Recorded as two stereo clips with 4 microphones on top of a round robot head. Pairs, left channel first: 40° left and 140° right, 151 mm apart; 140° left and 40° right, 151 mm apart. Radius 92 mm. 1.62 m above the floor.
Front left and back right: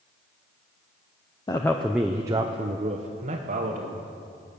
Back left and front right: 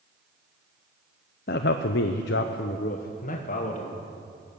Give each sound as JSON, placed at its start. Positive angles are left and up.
{"t": 1.5, "sound": "a man speaking", "azimuth_deg": 105, "distance_m": 0.6}